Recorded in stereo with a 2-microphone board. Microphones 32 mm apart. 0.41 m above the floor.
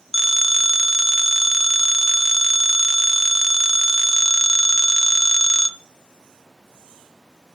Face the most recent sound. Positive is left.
turn(degrees=-5)  # may be behind; listen again after turning